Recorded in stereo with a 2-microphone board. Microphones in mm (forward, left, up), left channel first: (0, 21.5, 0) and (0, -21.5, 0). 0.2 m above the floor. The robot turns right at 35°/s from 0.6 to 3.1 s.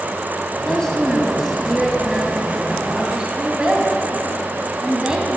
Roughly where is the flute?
No flute in this recording.